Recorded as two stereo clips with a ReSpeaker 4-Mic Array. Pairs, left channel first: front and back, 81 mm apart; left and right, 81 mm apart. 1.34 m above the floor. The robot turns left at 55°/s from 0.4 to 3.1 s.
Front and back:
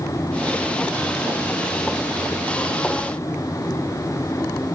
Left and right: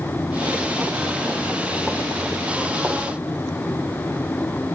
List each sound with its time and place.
Only background noise.